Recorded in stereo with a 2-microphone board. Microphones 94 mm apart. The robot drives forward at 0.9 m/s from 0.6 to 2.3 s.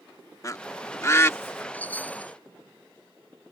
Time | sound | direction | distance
0.4 | a bird | 35° left (ahead or behind) | ?
1.7 | a chime | 20° left (ahead or behind) | ?